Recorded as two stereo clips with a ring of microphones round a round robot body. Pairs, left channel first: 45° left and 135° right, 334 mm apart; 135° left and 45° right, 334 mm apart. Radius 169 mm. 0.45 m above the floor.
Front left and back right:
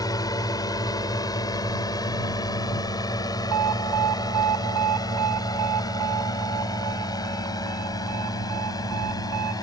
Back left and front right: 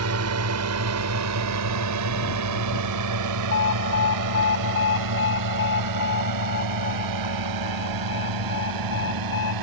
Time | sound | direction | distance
0.0 | a drone | 30° right | ?
3.5 | an alarm | 170° right | ?